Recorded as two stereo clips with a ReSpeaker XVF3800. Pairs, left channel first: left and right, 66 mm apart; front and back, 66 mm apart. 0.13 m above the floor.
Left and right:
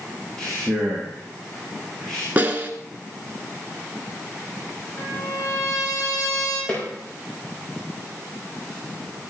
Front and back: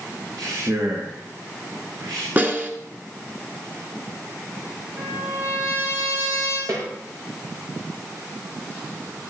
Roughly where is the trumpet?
Behind left.